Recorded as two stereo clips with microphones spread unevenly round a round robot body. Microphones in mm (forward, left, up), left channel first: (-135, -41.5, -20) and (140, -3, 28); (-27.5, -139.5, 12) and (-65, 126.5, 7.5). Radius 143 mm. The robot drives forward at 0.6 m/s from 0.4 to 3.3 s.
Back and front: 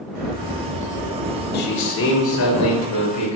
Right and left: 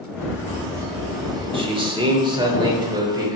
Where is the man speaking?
160° left, 1.1 m; by 3.4 s 170° left, 1.9 m.